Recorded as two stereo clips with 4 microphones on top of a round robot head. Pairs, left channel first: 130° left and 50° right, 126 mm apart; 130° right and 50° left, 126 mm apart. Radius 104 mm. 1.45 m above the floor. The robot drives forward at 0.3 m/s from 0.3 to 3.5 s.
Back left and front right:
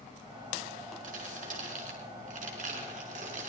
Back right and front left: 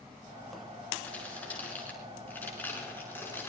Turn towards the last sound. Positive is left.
turn(degrees=-55)